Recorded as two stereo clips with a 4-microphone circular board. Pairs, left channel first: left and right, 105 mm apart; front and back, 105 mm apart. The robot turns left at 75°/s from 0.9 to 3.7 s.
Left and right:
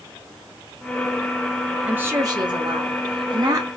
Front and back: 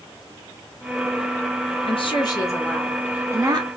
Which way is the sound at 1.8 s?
10° right.